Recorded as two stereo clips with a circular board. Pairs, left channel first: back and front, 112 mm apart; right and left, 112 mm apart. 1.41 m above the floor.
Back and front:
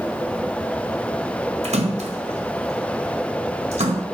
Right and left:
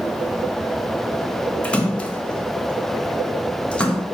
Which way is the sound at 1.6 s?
10° right.